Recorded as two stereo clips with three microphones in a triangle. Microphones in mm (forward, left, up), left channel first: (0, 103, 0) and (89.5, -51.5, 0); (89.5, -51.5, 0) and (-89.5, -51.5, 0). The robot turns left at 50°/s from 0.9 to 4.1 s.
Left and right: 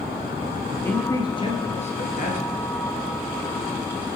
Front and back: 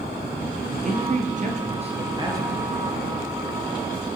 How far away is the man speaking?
About 1.9 m.